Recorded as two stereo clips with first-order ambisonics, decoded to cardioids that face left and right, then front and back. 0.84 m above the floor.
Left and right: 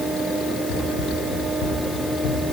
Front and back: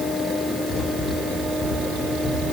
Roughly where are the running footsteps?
Left.